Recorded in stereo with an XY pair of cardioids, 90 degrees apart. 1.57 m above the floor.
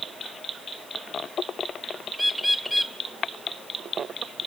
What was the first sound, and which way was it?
A bird, straight ahead.